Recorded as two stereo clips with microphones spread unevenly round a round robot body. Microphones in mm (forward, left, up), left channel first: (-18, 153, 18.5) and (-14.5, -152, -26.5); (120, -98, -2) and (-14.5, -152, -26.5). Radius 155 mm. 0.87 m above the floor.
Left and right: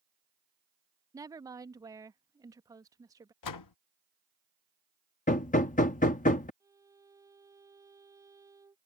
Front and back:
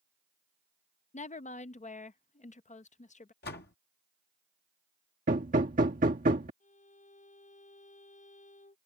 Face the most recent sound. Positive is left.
turn(degrees=-10)